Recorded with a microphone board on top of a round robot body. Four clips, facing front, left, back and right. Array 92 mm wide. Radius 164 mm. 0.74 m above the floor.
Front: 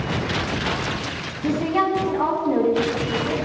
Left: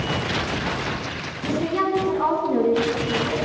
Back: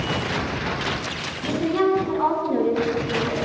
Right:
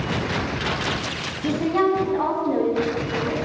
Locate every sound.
1.4 s a woman speaking: 40° right, 7.5 m